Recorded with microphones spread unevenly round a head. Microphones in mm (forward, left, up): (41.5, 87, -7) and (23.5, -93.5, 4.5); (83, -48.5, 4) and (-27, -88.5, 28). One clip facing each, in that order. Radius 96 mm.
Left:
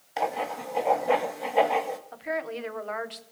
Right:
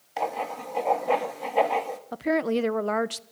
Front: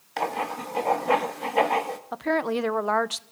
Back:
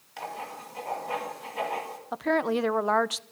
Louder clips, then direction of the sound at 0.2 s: Left 1 dB, front 9 dB; straight ahead.